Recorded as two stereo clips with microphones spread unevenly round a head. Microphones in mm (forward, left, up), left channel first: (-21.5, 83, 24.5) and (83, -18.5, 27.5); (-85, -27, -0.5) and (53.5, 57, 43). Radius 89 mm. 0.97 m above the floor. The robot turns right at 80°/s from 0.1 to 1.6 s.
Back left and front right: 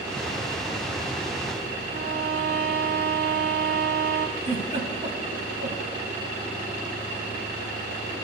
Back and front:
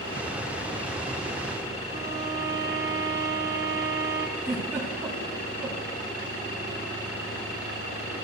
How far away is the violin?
About 0.7 m.